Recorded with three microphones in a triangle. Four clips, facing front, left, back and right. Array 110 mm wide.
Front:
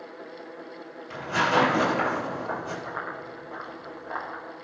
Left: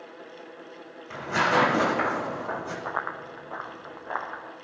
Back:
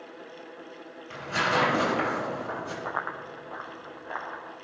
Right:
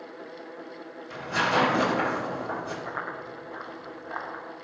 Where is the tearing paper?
90° left, 5 m.